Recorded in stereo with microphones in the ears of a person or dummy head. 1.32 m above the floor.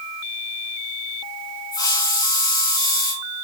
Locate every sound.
1.7 s a hiss: 15° left (ahead or behind), 4.5 m